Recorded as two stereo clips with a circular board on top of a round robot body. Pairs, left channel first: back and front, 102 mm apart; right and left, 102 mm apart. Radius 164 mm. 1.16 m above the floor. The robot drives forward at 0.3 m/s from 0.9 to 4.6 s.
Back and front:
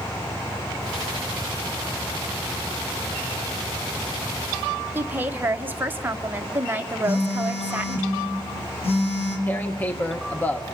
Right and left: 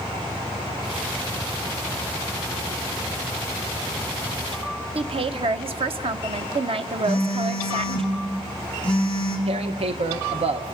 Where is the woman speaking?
70° left, 0.9 m.